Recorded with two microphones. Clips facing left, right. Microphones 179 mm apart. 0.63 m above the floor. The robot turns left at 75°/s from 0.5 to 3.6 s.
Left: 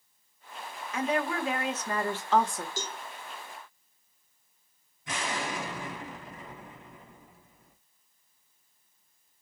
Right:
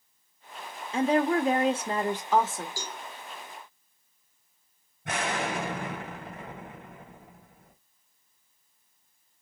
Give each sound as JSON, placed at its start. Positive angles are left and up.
{"t": 0.9, "sound": "a woman speaking", "azimuth_deg": -60, "distance_m": 1.1}
{"t": 2.8, "sound": "a cowbell", "side_deg": 20, "distance_m": 1.0}
{"t": 5.0, "sound": "an explosion", "side_deg": -65, "distance_m": 1.9}